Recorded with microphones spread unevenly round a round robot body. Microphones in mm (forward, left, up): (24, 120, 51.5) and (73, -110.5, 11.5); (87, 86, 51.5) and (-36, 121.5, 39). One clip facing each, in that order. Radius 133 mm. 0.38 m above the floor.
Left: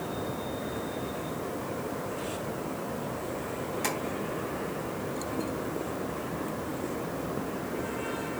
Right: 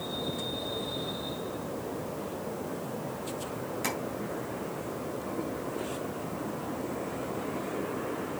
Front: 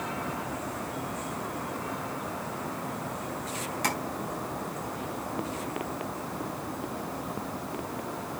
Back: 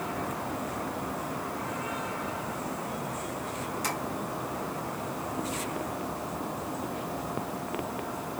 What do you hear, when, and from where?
3.8 s tapping: 5° left, 3 m